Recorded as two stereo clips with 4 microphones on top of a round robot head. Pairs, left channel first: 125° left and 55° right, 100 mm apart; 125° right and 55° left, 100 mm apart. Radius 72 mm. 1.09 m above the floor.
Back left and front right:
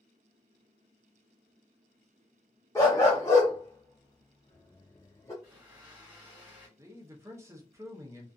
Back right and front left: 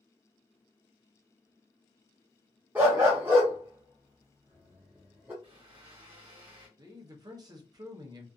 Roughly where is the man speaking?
Ahead.